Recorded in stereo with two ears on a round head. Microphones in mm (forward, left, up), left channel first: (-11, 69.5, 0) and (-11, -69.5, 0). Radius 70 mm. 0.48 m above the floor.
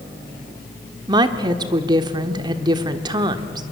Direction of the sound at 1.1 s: 30° right (ahead or behind).